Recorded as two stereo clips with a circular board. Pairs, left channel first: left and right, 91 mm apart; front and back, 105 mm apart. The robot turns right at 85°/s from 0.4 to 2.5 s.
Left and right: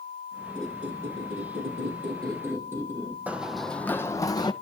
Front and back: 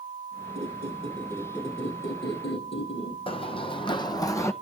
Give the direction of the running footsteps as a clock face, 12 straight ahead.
1 o'clock.